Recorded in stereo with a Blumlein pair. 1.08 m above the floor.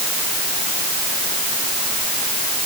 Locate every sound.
Only background noise.